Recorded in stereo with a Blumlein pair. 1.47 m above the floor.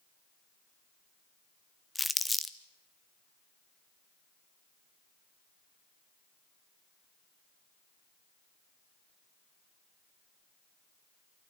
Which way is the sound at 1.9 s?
5° left.